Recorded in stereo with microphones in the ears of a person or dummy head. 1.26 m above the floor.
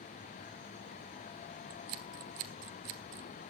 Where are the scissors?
50° right (ahead or behind), 1.3 m.